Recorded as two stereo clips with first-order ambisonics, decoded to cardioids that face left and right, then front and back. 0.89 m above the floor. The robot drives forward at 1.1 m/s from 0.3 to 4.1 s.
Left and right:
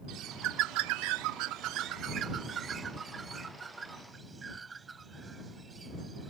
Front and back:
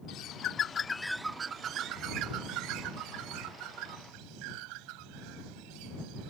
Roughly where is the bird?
Ahead right.